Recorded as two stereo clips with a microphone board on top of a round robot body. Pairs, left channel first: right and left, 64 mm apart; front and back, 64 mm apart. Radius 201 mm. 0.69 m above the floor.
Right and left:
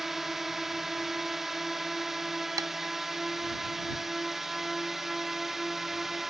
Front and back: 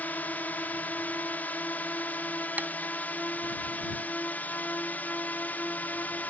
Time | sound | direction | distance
0.0 | a drone | 10° left | ?
2.6 | tapping | 115° left | ?